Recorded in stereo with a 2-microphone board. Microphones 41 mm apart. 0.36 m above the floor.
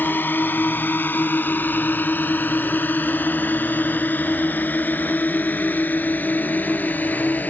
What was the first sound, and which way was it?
A drone, 60° left (ahead or behind).